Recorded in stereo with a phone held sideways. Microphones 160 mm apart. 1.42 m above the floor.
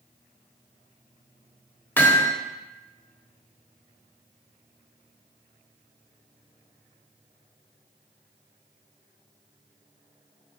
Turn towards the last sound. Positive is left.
turn(degrees=15)  # may be behind; listen again after turning